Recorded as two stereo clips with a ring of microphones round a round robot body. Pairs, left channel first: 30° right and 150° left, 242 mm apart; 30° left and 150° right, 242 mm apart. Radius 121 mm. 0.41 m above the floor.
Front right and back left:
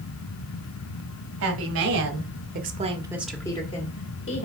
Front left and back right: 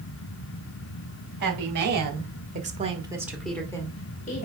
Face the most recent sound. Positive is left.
turn(degrees=-20)